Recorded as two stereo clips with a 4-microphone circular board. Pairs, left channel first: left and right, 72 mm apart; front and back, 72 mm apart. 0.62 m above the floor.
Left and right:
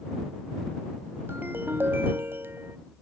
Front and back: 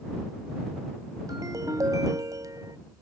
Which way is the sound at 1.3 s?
150° right.